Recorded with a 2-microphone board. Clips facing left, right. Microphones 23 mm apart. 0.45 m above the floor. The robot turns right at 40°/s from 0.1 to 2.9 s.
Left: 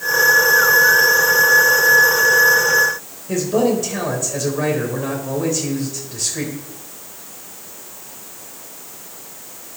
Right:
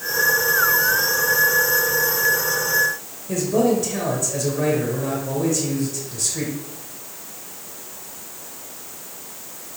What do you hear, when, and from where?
3.3 s a man speaking: 15° left (ahead or behind), 2.0 m